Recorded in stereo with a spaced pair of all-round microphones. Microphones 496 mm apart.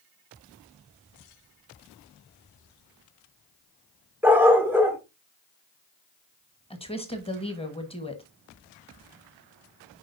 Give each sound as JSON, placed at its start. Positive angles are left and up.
{"t": 4.2, "sound": "a dog barking", "side_deg": -5, "distance_m": 1.5}
{"t": 6.7, "sound": "a woman speaking", "side_deg": 10, "distance_m": 1.3}